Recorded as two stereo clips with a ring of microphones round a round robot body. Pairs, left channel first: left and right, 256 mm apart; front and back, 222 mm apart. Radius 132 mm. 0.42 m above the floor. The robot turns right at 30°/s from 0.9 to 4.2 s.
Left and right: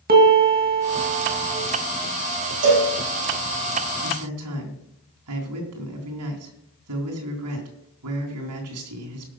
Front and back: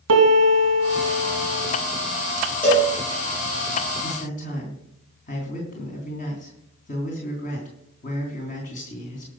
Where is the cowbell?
85° right, 5.5 m; by 2.9 s 75° right, 5.5 m.